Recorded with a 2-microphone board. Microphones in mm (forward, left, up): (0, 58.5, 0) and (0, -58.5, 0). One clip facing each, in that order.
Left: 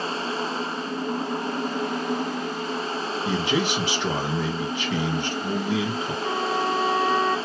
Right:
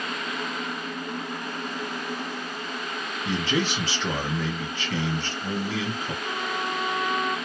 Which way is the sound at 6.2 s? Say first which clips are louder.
Left 7 dB; 55° left (ahead or behind).